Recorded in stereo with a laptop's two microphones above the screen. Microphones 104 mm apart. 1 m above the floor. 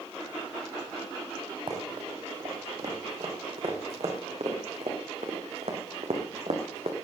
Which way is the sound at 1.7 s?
45° right (ahead or behind).